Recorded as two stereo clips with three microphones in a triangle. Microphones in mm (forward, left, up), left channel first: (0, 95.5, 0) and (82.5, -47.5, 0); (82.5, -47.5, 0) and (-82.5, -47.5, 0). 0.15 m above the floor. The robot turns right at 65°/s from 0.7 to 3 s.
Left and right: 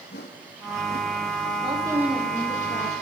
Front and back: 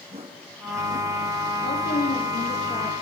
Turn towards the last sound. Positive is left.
turn(degrees=85)